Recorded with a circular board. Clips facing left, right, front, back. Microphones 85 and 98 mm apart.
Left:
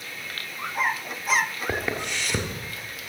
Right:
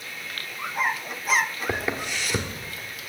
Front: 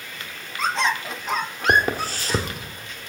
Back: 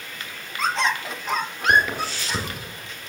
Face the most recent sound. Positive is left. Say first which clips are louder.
# even, even
turn(degrees=-5)